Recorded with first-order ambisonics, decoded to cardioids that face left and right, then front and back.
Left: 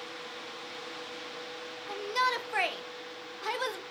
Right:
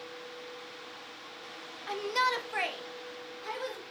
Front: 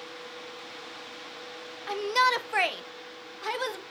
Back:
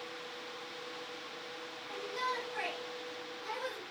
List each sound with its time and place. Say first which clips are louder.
1.9 s a shout: even, front 13 dB; 15° right, 0.9 m; by 3.8 s 40° left, 1.7 m